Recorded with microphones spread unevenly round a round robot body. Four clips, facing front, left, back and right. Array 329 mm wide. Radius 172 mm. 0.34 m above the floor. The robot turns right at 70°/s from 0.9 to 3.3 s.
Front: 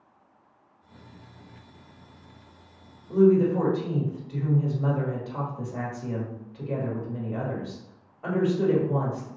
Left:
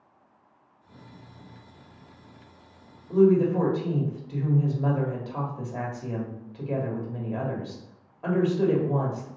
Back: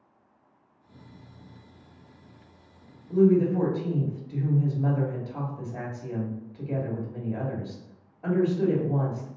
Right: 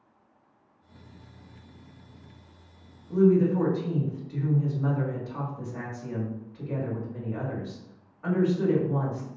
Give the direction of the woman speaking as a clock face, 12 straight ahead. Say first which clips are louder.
Left 2 dB, front 1 dB; 10 o'clock.